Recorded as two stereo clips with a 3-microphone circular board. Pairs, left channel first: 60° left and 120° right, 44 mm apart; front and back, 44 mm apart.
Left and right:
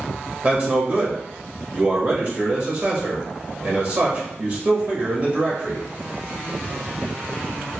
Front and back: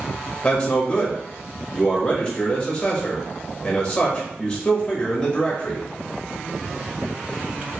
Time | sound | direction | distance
0.4 | a man speaking | 75° right | 1.6 m